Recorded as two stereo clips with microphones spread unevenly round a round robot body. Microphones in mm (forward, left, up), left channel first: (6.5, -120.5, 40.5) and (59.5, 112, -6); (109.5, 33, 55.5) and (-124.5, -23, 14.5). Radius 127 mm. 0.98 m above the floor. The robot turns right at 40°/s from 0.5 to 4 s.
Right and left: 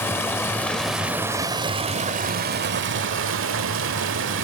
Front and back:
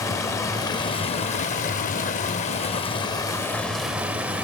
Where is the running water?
45° right, 0.8 m; by 4.4 s 95° left, 0.8 m.